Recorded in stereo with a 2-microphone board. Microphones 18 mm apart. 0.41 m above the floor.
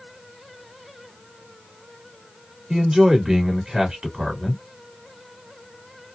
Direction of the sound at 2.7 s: 45° right (ahead or behind).